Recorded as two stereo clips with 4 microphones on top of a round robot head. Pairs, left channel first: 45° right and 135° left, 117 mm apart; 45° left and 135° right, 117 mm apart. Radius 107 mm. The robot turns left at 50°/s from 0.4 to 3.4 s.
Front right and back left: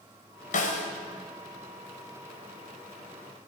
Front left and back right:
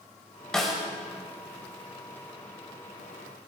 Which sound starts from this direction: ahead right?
A snare drum, at 0.5 s.